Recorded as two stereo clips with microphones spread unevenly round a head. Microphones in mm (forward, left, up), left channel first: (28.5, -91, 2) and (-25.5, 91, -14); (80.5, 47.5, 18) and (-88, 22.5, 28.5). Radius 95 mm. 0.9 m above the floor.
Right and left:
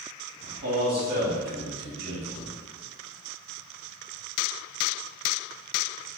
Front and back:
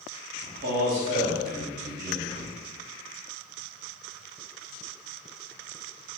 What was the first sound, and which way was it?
A man speaking, 145° left.